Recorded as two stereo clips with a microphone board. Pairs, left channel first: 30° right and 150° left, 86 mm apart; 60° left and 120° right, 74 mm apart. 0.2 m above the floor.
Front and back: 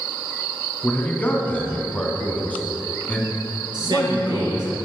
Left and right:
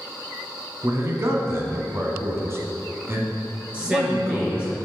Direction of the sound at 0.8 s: 95° right.